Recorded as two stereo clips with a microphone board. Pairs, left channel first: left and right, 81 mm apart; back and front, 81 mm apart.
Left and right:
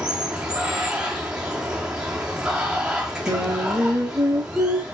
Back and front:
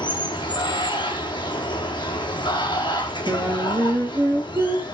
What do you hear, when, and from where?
0.0 s running water: 170° right, 2.5 m
3.3 s singing: 40° right, 3 m